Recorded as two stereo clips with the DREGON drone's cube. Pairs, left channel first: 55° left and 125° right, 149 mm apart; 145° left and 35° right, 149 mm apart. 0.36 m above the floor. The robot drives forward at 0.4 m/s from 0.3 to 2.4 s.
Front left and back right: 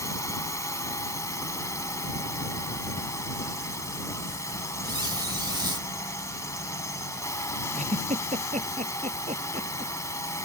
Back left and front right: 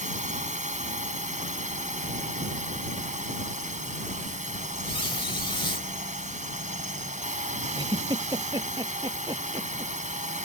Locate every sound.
0.0 s a drone: 10° right
4.8 s a squeak: 175° right
7.7 s a giggle: 95° right